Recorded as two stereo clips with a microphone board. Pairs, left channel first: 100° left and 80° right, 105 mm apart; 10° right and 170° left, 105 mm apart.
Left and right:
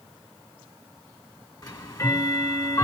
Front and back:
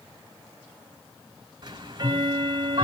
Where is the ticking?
140° left, 1.6 m.